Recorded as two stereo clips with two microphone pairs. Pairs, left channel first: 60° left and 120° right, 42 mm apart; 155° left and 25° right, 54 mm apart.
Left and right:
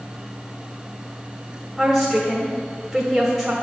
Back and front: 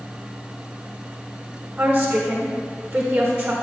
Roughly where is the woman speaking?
Ahead right.